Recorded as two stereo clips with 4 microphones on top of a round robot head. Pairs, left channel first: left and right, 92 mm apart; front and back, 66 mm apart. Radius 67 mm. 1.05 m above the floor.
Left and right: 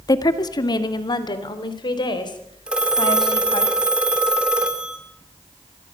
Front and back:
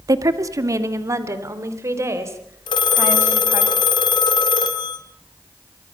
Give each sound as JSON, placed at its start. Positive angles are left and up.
{"t": 0.1, "sound": "a woman speaking", "azimuth_deg": 140, "distance_m": 1.5}
{"t": 2.7, "sound": "a phone ringing", "azimuth_deg": -5, "distance_m": 2.0}